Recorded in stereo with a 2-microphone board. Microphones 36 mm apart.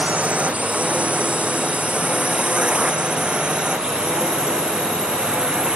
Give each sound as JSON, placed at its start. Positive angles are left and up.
{"t": 0.0, "sound": "a drone", "side_deg": -35}